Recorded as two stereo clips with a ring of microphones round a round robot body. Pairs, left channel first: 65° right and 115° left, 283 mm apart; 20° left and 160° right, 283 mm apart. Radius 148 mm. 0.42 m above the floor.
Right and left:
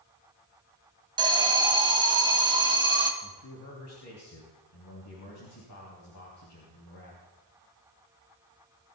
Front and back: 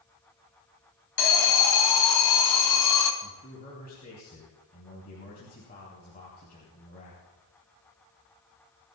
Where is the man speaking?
35° right, 4 m.